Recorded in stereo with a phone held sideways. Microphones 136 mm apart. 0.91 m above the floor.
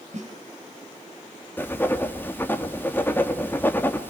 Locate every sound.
0.1 s a snare drum: 60° right (ahead or behind), 4 m
1.6 s writing: 15° left (ahead or behind), 2 m